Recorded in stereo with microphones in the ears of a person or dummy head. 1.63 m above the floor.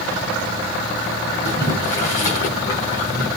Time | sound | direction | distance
1.4 | boiling | 25° left (ahead or behind) | 2 m